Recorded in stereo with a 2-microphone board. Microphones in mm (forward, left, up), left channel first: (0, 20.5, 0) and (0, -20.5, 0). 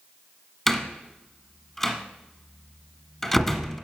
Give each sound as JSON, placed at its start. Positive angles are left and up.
{"t": 0.7, "sound": "a door slam", "side_deg": 10, "distance_m": 1.3}